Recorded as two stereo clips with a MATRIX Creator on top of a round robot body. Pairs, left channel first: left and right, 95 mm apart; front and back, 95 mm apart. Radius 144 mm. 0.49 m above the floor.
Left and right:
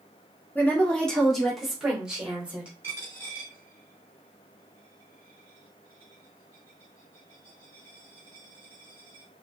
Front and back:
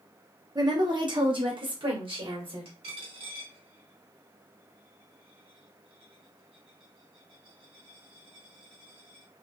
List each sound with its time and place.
0.6 s a woman speaking: 155° left, 1.7 m; by 2.7 s 170° right, 3 m
2.8 s a dropped coin: 160° right, 2 m